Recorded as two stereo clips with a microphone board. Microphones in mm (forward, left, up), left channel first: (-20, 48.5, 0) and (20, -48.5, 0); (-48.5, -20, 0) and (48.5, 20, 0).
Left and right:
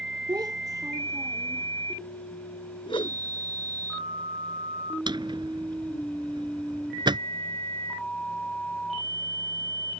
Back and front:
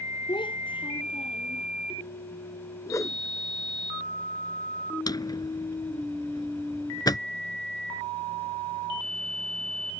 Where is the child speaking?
115° right; by 1.7 s 130° right.